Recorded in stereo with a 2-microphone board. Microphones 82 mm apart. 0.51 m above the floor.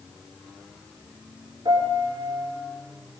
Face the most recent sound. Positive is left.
turn(degrees=-60)  # may be behind; listen again after turning